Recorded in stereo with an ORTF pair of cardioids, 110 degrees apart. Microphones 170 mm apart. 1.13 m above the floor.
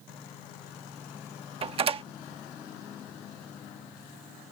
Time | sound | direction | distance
1.6 | a door slam | 35° right | ?